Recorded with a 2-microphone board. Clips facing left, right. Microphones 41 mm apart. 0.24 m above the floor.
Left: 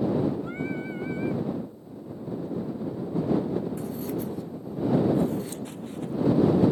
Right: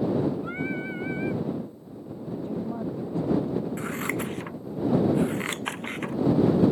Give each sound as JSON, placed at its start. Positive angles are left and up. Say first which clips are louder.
{"t": 0.4, "sound": "singing", "louder": "right 1 dB", "side_deg": -25}
{"t": 2.4, "sound": "a woman speaking", "louder": "right 2 dB", "side_deg": -70}
{"t": 3.8, "sound": "scissors", "louder": "right 2 dB", "side_deg": -80}